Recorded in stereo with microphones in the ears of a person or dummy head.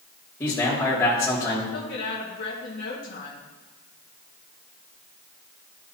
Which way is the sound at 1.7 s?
60° left (ahead or behind).